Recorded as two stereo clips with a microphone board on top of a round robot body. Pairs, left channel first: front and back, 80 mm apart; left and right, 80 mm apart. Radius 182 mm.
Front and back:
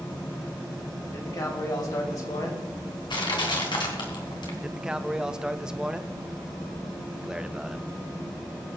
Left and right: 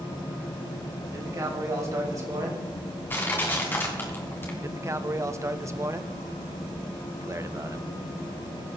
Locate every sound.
1.1 s a man speaking: 40° right, 4 m; by 2.7 s 45° right, 3.5 m
3.1 s crushing: 25° left, 2.5 m
4.6 s a man speaking: 105° right, 1.2 m